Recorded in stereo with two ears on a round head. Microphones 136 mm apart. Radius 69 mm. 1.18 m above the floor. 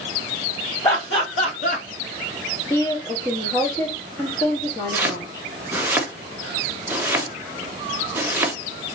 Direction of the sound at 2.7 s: 25° left (ahead or behind).